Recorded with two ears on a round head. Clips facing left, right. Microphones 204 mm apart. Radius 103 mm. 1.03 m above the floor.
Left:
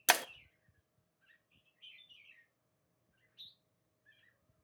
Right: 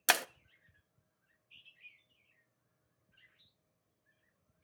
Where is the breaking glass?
5° right (ahead or behind), 0.6 m.